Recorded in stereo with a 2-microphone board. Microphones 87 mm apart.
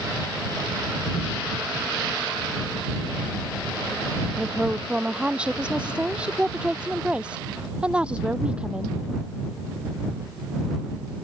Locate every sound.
4.4 s a woman speaking: 10° right (ahead or behind)